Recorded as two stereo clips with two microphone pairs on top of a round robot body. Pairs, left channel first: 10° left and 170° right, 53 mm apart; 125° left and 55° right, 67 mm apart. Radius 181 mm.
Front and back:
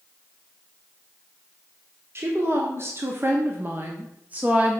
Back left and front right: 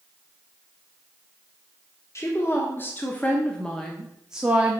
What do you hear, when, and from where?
2.1 s a woman speaking: 165° left, 1.5 m; by 4.8 s 110° right, 1.2 m